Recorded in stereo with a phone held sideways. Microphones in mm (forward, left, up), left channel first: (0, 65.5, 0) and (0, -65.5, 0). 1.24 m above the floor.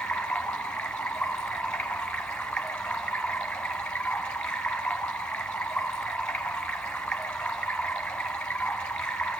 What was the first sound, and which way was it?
Running water, 5° left (ahead or behind).